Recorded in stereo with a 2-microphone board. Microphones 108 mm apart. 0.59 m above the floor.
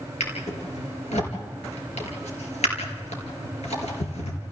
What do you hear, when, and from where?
0.2 s a drawer: 90° left, 4.5 m